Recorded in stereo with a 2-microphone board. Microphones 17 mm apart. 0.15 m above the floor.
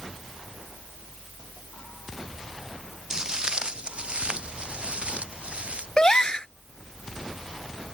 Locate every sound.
3.1 s footsteps: 30° right (ahead or behind); by 5.9 s 85° right
6.0 s a gasp: 40° left (ahead or behind)